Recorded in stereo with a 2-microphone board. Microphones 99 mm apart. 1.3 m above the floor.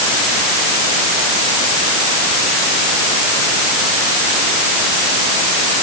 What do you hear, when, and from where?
Only background noise.